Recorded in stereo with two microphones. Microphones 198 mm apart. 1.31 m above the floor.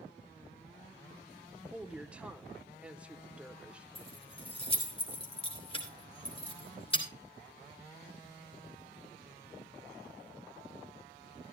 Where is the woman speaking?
5° right (ahead or behind), 1.0 m.